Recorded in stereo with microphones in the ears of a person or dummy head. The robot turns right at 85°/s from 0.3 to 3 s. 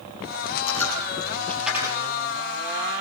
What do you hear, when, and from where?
0.7 s a dropped coin: 75° left (ahead or behind), 5.5 m; by 2.0 s 35° right (ahead or behind), 5.5 m